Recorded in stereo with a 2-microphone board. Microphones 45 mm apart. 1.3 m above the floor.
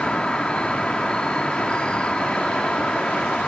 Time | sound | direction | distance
0.0 | an insect | 20° left (ahead or behind) | ?